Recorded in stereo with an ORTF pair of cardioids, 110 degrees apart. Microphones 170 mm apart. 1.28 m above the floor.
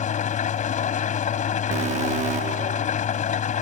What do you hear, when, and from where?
0.0 s an engine running: 50° left
1.7 s an alarm: 45° right